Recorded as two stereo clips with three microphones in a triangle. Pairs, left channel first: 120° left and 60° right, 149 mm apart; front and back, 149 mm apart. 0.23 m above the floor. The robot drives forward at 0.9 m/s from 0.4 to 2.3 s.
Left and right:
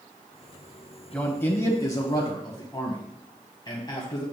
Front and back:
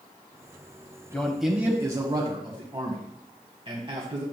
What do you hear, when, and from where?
1.1 s a man speaking: 55° left, 1.2 m; by 4.2 s 160° left, 1.5 m